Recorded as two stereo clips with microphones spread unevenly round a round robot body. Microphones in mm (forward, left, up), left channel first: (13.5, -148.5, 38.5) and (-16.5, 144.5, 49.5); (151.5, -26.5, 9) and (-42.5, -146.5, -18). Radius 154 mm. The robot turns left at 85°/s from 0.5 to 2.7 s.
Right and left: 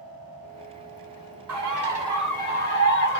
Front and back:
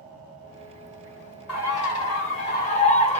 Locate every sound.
1.5 s a bird: 70° left, 1.4 m; by 3.2 s 30° right, 1.4 m